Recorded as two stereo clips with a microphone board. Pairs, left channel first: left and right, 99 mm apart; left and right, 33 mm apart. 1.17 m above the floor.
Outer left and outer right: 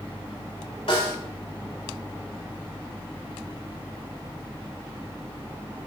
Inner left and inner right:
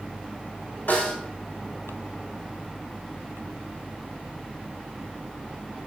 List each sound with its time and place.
0.9 s a snare drum: 75° left (ahead or behind), 5 m